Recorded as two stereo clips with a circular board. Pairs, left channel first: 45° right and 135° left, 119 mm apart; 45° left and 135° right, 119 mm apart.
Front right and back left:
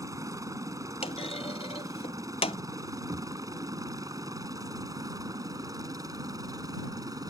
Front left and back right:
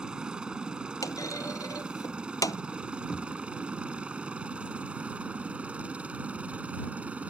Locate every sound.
0.0 s a helicopter: 150° left; by 7.3 s 155° left
1.0 s a clunk: 15° right
3.1 s knocking: 130° left